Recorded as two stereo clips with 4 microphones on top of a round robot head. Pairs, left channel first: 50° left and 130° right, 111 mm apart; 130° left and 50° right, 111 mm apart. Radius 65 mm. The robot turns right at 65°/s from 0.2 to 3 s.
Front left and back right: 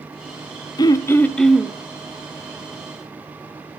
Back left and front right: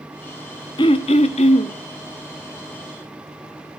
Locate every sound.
0.8 s throat clearing: 90° left, 1.0 m; by 1.8 s 155° left, 1.0 m